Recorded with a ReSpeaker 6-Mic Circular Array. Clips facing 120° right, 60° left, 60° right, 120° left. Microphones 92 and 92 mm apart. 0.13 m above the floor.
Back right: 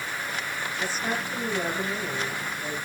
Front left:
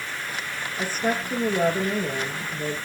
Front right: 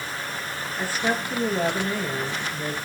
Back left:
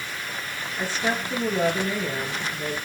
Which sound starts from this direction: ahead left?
A woman speaking, at 0.8 s.